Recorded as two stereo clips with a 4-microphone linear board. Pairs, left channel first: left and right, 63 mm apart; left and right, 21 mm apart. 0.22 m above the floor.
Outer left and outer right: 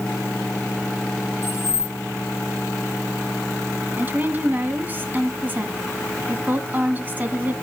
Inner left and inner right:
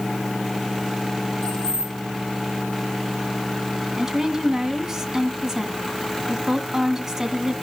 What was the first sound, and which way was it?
Keys jangling, 40° left (ahead or behind).